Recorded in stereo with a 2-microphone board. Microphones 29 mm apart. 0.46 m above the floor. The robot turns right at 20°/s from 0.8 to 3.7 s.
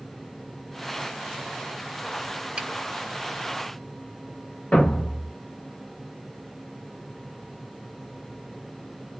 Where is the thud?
35° left (ahead or behind), 1.1 m.